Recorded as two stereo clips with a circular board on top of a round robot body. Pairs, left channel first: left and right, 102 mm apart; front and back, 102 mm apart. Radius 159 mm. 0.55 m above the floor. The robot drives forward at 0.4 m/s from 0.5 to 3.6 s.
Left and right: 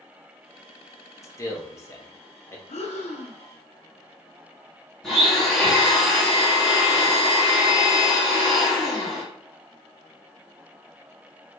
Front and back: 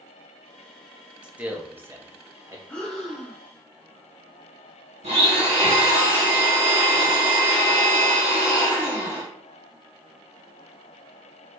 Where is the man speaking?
110° left, 1.4 m; by 2.6 s 140° left, 1.6 m.